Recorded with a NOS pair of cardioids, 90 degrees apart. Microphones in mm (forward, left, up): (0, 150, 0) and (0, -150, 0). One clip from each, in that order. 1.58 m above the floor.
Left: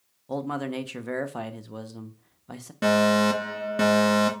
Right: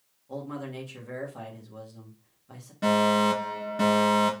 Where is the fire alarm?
50° left, 3 m.